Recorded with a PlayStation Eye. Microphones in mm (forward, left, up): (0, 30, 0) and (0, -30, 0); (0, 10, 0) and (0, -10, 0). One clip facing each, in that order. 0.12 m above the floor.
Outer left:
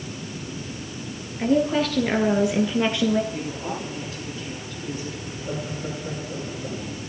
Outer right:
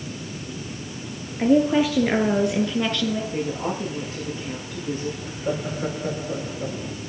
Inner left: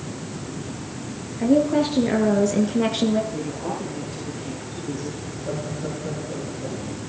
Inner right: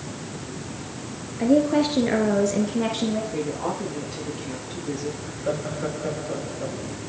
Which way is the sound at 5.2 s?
70° right (ahead or behind).